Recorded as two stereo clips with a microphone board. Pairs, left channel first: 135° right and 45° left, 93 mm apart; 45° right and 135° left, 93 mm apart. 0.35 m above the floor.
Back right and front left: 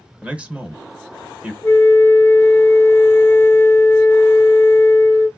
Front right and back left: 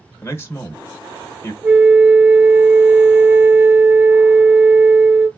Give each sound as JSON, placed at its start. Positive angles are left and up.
{"t": 0.2, "sound": "a man speaking", "azimuth_deg": -20, "distance_m": 0.9}
{"t": 1.6, "sound": "a flute", "azimuth_deg": 175, "distance_m": 0.9}